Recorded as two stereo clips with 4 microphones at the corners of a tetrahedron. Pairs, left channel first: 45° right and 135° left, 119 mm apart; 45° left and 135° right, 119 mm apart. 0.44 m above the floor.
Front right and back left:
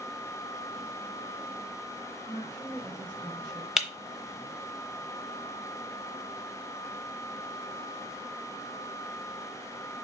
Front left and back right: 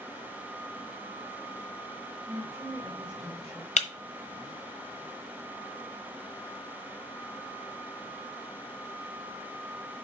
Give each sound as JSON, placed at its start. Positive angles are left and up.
{"t": 2.3, "sound": "a woman speaking", "azimuth_deg": 180, "distance_m": 1.9}
{"t": 3.8, "sound": "breaking glass", "azimuth_deg": 50, "distance_m": 1.1}